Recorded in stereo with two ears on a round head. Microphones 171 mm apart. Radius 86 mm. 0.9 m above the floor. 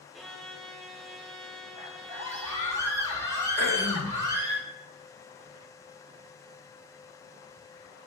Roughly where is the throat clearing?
Left.